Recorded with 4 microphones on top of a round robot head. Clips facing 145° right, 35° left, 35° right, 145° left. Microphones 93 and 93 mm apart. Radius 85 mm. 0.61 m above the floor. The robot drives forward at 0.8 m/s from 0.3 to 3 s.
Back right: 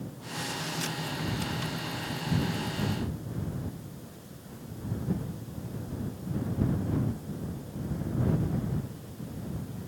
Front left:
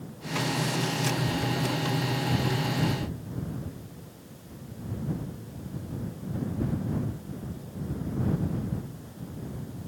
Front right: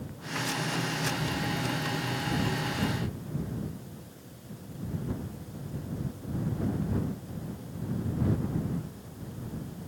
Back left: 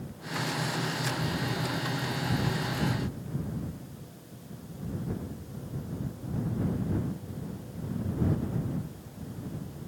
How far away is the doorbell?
No doorbell in this recording.